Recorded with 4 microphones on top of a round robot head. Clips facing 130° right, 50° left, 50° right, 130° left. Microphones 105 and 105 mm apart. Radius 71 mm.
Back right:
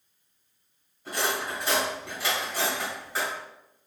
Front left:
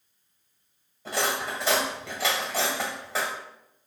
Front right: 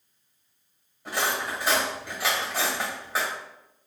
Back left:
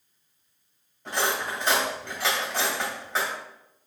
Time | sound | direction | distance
1.1 | cutlery clinking | 30° left | 1.5 m